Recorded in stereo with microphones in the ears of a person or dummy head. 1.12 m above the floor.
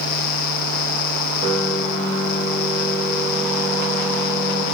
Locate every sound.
1.4 s a piano: 80° left, 2.5 m